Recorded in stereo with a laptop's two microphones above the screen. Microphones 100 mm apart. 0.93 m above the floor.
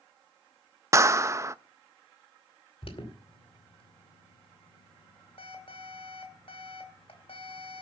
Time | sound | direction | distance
0.9 | a clap | 30° right (ahead or behind) | 0.6 m
2.8 | an alarm | 60° left (ahead or behind) | 2.5 m